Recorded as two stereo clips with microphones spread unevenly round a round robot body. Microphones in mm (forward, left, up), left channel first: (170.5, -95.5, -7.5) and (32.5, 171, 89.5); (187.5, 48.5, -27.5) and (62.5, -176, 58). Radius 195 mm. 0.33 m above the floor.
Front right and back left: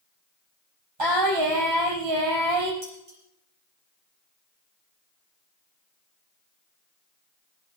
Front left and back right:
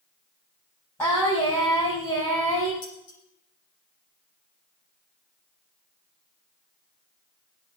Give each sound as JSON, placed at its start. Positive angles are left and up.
{"t": 1.0, "sound": "singing", "azimuth_deg": 145, "distance_m": 5.0}
{"t": 2.8, "sound": "dishes clattering", "azimuth_deg": 85, "distance_m": 8.0}